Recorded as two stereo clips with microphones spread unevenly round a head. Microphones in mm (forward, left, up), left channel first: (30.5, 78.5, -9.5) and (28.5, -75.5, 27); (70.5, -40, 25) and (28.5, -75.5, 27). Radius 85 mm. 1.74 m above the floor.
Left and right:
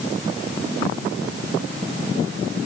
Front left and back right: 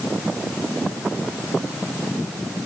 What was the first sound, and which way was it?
Only background noise.